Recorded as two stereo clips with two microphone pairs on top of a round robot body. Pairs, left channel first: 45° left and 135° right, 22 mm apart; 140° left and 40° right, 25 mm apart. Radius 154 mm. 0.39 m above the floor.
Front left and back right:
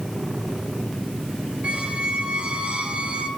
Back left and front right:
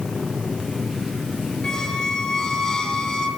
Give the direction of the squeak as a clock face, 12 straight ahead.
5 o'clock.